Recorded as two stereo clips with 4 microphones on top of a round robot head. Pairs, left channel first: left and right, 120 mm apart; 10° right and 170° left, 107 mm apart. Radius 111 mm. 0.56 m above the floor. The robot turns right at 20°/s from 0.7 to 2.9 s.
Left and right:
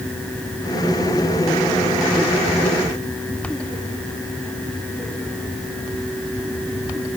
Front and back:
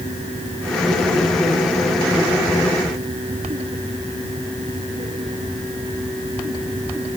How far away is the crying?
No crying in this recording.